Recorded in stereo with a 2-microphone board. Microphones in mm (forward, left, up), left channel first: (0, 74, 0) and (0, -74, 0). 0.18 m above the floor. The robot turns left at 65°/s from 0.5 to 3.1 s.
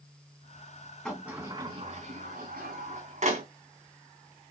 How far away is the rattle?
I don't hear a rattle.